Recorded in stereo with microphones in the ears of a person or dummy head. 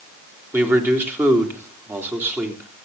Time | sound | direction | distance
0.5 | a man speaking | 20° right (ahead or behind) | 3 m